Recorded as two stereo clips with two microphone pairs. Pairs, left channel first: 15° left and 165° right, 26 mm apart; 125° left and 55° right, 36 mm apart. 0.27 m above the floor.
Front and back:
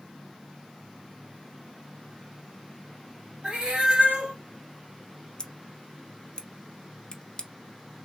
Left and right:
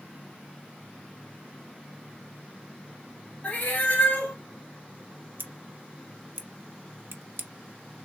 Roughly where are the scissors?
Ahead right.